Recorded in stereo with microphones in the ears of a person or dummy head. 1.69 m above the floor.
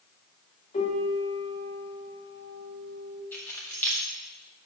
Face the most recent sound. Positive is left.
turn(degrees=10)  # may be behind; listen again after turning